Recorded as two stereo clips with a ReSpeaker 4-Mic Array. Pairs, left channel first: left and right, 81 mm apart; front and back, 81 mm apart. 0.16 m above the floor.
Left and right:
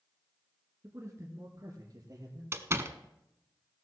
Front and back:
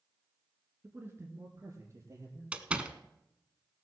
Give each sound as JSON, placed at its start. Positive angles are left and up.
{"t": 0.8, "sound": "a man speaking", "azimuth_deg": -125, "distance_m": 1.5}
{"t": 2.5, "sound": "a door slam", "azimuth_deg": -115, "distance_m": 0.9}